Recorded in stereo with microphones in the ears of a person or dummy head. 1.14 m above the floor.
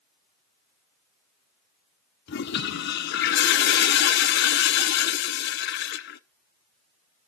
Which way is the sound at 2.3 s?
55° left (ahead or behind).